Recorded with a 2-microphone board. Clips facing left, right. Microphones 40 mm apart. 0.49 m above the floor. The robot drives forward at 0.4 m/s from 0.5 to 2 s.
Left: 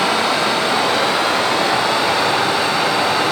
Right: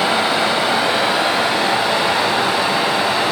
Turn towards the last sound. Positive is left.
turn(degrees=-15)  # may be behind; listen again after turning